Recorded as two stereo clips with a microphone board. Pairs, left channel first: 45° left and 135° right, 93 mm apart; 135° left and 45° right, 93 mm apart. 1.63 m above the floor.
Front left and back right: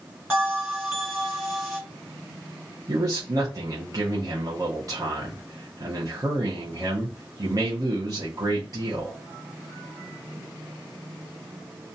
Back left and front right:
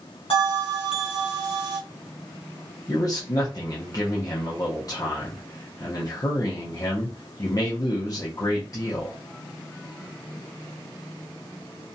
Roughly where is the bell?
Behind left.